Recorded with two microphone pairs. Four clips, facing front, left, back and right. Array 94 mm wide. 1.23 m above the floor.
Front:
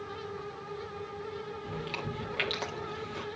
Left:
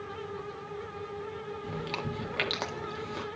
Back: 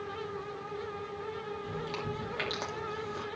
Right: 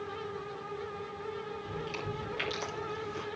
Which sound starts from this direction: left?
Chewing, at 1.6 s.